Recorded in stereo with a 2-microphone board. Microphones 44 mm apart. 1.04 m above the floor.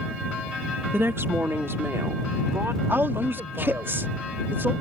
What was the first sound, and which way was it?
A woman speaking, 70° right (ahead or behind).